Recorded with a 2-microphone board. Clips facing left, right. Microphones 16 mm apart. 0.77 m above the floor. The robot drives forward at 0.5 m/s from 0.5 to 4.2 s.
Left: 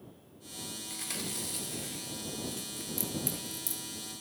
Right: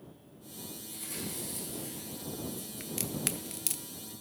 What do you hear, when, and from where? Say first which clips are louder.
0.9 s chewing: left 2 dB; 60° left (ahead or behind), 2.5 m; by 2.9 s 70° left (ahead or behind), 2.5 m
2.8 s a crack: right 1 dB; 35° right (ahead or behind), 1.0 m; by 3.8 s 60° right (ahead or behind), 0.6 m